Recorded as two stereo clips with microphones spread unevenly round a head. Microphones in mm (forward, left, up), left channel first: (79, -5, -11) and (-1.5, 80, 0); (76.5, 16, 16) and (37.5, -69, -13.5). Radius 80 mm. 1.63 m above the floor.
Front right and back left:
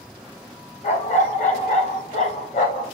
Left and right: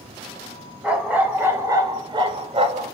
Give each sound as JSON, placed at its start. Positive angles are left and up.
{"t": 0.8, "sound": "a dog barking", "azimuth_deg": -30, "distance_m": 3.0}